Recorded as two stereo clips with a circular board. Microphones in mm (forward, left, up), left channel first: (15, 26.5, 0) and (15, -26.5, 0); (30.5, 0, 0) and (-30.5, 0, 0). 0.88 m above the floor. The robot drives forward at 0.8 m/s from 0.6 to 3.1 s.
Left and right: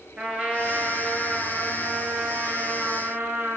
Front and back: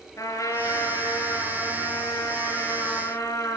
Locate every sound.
0.2 s a trumpet: 25° right, 7 m; by 3.6 s 35° right, 5.5 m